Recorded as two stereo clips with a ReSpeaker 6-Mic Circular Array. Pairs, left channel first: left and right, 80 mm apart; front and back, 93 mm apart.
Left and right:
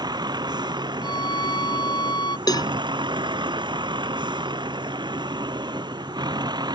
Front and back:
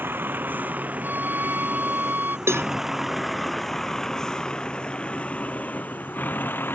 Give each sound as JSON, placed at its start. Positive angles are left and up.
{"t": 0.0, "sound": "a vehicle", "azimuth_deg": -115}
{"t": 1.0, "sound": "a violin", "azimuth_deg": 110}
{"t": 2.5, "sound": "a cowbell", "azimuth_deg": 120}